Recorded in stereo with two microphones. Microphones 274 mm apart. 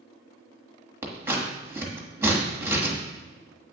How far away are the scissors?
About 1.2 m.